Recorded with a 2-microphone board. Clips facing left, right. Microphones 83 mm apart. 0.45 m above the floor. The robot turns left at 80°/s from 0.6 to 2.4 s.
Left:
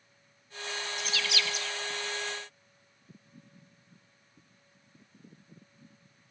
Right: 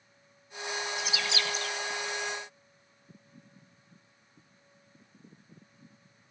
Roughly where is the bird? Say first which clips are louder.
Right 1 dB; centre.